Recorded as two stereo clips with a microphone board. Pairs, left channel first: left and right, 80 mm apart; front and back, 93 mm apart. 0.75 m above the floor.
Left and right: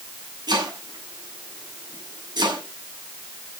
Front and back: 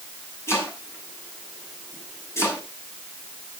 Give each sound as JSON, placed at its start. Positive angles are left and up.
{"t": 0.5, "sound": "chopping", "azimuth_deg": -60, "distance_m": 5.5}